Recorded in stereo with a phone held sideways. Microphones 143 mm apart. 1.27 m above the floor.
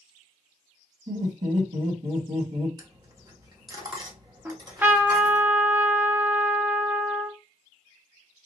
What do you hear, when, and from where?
1.1 s laughter: 80° right, 1.8 m
2.8 s a dropped coin: 30° right (ahead or behind), 0.9 m
4.5 s a trumpet: 15° right (ahead or behind), 0.6 m